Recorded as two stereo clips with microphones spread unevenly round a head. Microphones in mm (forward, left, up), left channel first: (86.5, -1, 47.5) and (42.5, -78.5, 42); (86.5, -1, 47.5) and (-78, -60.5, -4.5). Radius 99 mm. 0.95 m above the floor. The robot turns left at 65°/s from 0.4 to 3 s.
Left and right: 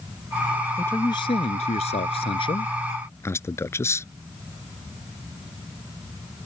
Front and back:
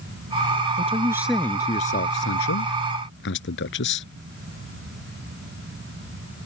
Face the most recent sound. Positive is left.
turn(degrees=0)